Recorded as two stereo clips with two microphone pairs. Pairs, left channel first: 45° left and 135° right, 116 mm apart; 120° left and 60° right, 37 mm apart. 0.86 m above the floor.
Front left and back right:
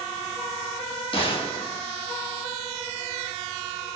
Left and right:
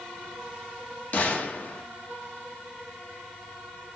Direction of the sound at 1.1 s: 85° left.